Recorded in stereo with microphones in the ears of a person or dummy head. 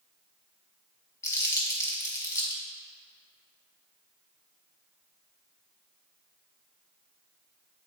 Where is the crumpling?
15° left (ahead or behind), 3.5 m.